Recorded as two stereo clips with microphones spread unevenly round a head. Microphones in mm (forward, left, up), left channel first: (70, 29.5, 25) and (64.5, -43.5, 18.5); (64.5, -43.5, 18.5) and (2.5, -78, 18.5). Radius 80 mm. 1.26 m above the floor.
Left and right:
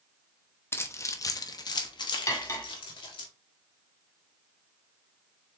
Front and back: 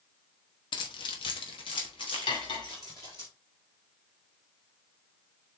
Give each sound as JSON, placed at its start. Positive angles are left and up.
{"t": 0.7, "sound": "keys jangling", "azimuth_deg": 30, "distance_m": 1.1}
{"t": 2.3, "sound": "cutlery clinking", "azimuth_deg": 45, "distance_m": 1.8}